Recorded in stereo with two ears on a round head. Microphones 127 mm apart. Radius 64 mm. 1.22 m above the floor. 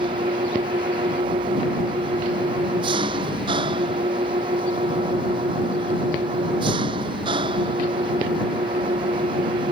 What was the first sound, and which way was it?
An engine running, 35° right (ahead or behind).